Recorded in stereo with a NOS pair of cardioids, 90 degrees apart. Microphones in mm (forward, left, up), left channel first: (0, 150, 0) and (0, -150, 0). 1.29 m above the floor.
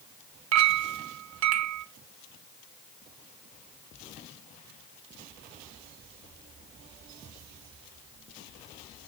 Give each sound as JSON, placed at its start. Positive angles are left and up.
{"t": 0.5, "sound": "a clink", "azimuth_deg": -65, "distance_m": 0.9}